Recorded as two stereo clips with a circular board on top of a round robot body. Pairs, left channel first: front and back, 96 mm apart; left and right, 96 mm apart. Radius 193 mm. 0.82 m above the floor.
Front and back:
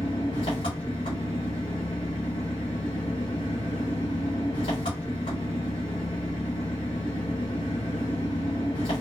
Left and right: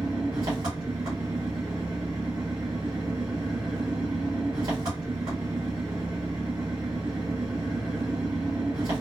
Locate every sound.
0.0 s an engine running: 40° right, 0.7 m